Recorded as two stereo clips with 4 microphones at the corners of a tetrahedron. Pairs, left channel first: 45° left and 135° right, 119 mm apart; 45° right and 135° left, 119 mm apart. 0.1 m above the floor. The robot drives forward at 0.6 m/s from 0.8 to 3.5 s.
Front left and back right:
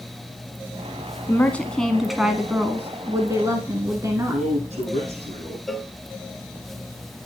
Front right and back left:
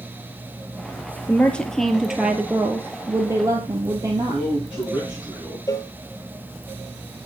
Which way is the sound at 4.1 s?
150° right.